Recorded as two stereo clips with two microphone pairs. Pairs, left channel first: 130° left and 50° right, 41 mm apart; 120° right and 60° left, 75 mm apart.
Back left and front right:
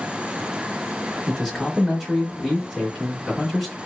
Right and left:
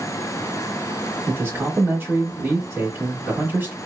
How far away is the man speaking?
About 1.0 m.